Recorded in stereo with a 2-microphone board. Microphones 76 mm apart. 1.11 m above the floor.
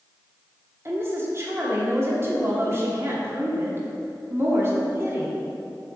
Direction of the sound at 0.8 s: 35° right (ahead or behind).